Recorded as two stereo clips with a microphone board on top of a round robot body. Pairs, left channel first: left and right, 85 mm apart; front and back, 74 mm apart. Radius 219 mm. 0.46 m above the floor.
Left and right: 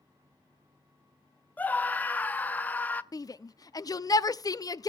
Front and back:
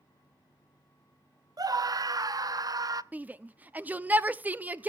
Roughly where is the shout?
Behind left.